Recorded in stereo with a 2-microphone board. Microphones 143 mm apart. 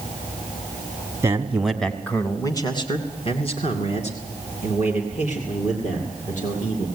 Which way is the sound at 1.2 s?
20° right (ahead or behind).